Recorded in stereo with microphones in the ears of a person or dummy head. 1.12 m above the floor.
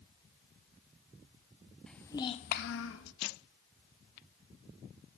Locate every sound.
1.9 s a child speaking: centre (ahead or behind), 1.0 m; by 3.1 s 70° left (ahead or behind), 1.1 m